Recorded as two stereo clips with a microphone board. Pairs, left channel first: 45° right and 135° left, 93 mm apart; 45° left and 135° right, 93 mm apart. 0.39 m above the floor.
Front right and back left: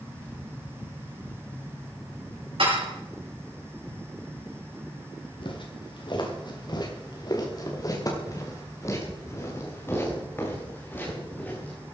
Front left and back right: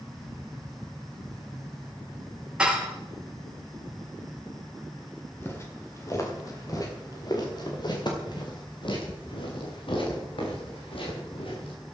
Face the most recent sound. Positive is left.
turn(degrees=25)